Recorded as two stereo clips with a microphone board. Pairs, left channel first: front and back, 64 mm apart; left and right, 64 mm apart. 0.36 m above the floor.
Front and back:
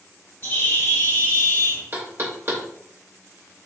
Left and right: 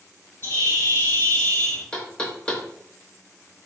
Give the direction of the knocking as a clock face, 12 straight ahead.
7 o'clock.